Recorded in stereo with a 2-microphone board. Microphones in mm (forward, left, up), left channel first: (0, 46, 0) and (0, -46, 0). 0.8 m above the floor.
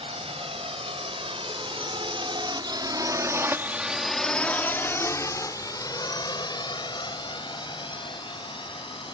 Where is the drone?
75° right (ahead or behind); by 9.1 s 60° left (ahead or behind).